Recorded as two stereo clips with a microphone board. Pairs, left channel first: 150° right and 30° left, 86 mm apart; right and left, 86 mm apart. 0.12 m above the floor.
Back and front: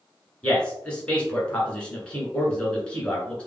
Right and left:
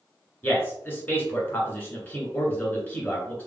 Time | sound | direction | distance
0.4 | a man speaking | 105° right | 1.5 m